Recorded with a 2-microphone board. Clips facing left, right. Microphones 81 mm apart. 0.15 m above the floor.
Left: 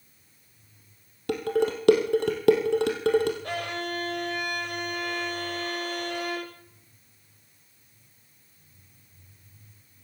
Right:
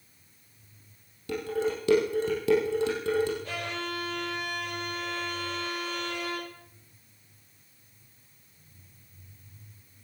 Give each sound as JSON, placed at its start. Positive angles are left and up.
{"t": 1.3, "sound": "dishes clattering", "side_deg": 65, "distance_m": 3.0}
{"t": 3.4, "sound": "a violin", "side_deg": 60, "distance_m": 8.5}